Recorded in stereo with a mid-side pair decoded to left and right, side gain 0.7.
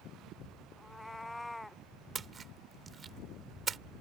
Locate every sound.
0.8 s a cat meowing: 10° left; by 1.8 s 5° left
2.1 s a splash: 30° right